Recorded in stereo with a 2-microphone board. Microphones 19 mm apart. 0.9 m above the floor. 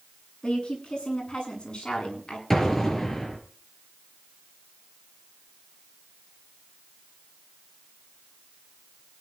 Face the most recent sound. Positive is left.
turn(degrees=15)  # may be behind; listen again after turning